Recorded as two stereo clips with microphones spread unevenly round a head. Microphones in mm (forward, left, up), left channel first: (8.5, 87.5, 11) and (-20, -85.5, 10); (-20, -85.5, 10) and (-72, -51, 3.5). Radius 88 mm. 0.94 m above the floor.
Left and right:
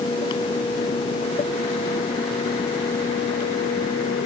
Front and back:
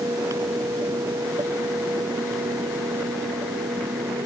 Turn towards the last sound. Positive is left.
No sound to turn to.